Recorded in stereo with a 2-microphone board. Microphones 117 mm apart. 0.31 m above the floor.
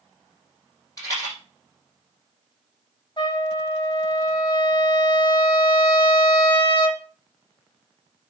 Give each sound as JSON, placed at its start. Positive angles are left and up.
{"t": 1.0, "sound": "a rattle", "side_deg": 30, "distance_m": 5.5}
{"t": 3.2, "sound": "a trumpet", "side_deg": 40, "distance_m": 1.2}